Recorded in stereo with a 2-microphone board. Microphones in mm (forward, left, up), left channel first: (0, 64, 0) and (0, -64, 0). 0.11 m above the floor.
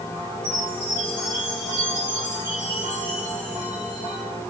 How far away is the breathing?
I don't hear breathing.